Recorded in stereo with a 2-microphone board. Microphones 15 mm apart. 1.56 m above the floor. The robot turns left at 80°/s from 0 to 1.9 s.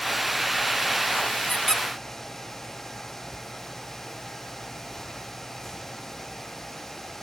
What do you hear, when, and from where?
1.5 s a squeak: 20° left (ahead or behind), 0.7 m; by 1.8 s 25° left (ahead or behind), 0.7 m